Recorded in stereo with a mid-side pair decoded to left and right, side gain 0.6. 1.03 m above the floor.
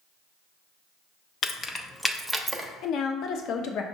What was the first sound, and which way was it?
Keys jangling, 40° left.